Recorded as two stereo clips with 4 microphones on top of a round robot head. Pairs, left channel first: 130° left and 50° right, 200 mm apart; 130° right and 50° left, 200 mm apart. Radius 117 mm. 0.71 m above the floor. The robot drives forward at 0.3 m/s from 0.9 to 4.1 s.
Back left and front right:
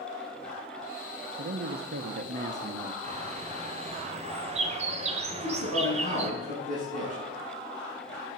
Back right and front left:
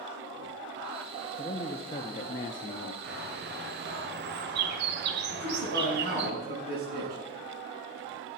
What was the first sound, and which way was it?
A man speaking, 65° right.